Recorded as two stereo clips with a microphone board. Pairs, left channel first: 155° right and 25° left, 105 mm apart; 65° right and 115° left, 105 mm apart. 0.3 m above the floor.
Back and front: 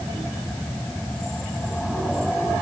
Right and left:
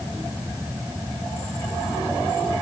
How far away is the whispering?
I don't hear whispering.